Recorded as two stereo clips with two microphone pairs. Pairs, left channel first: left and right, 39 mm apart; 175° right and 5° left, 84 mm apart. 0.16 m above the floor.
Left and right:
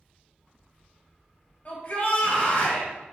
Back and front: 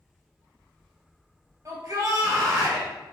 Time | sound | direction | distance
1.6 | a shout | 45° left | 2.5 m